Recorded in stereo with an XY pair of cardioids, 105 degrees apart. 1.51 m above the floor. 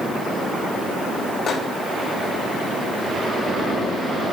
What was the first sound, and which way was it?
A microwave, 45° left.